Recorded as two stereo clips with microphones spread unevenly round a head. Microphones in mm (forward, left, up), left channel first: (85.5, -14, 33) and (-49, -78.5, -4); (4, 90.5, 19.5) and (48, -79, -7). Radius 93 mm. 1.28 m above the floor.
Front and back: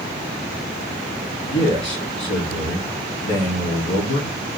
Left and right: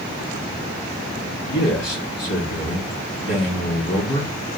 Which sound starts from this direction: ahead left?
A man speaking, at 1.5 s.